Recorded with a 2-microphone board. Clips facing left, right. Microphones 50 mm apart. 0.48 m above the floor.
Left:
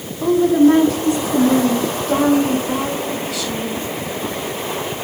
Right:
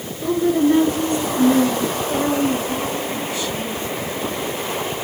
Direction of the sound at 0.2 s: 70° left (ahead or behind).